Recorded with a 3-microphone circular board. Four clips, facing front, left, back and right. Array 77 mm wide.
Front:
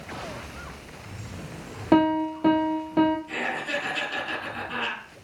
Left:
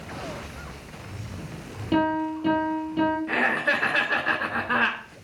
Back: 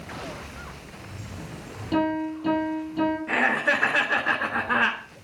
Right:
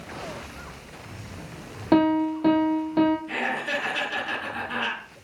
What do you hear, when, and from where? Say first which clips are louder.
1.9 s a piano: right 4 dB, front 4 dB; 40° right, 4 m
3.3 s laughter: left 4 dB, back 7 dB; 145° left, 4 m